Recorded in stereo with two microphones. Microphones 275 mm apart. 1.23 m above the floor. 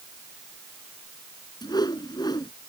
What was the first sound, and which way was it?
A whoosh, 15° left (ahead or behind).